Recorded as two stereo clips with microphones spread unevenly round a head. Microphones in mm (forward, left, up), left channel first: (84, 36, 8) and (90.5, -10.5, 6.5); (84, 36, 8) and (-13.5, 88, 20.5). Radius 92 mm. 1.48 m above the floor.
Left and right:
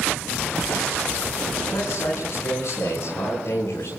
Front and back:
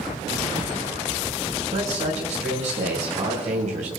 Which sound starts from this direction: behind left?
A man speaking, at 1.7 s.